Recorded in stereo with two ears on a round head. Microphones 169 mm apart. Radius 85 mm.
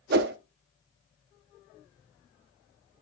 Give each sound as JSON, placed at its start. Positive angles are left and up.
{"t": 0.1, "sound": "a whoosh", "side_deg": -55, "distance_m": 0.6}